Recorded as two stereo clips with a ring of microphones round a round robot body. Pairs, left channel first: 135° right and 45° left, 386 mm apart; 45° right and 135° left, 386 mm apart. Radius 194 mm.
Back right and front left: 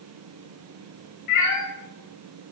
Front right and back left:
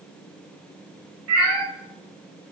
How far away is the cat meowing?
About 2 m.